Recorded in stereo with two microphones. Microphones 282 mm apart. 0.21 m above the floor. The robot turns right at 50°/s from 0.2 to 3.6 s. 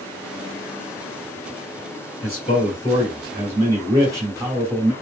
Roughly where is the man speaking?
Behind left.